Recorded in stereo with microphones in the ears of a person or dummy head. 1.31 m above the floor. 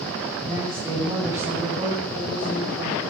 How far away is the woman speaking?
About 8.5 m.